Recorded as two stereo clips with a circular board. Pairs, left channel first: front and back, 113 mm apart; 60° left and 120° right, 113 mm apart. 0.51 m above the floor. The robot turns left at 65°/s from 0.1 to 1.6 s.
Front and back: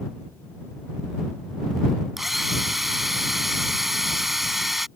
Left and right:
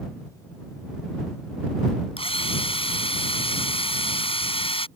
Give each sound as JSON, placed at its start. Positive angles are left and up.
{"t": 2.2, "sound": "a drill", "azimuth_deg": 90}